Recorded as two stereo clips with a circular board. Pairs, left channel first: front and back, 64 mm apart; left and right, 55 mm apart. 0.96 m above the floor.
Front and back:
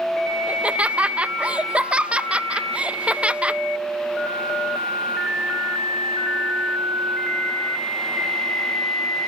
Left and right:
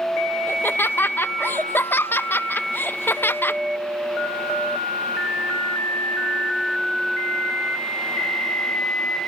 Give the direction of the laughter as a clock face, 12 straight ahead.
8 o'clock.